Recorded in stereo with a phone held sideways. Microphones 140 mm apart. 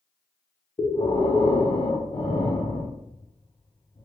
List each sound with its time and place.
0.8 s breathing: 35° left (ahead or behind), 0.7 m